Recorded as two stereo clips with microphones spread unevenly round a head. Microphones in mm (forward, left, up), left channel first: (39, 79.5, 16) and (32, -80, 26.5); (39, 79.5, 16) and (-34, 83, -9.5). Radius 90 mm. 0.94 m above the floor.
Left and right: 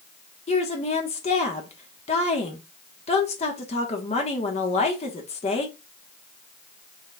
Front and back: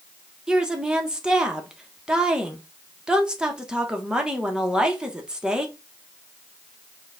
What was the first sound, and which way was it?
A woman speaking, 120° left.